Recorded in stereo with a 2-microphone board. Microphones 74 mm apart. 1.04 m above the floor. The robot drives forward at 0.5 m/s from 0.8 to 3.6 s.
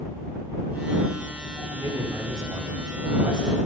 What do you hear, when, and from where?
1.7 s a man speaking: 85° right, 2.5 m; by 3.6 s 75° right (ahead or behind), 2.5 m